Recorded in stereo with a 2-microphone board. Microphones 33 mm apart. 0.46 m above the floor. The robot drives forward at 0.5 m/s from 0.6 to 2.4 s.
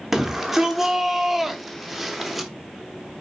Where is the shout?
5° right (ahead or behind), 0.8 m.